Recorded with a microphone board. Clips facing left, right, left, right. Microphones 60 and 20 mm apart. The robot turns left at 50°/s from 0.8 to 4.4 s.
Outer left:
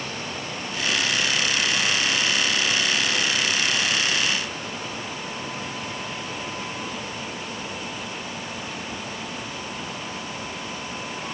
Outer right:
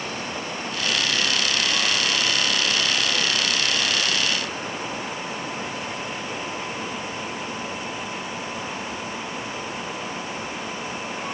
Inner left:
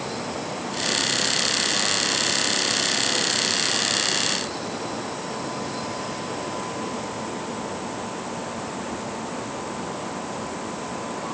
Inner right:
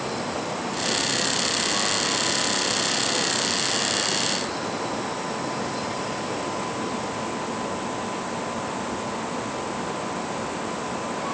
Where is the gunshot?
I don't hear a gunshot.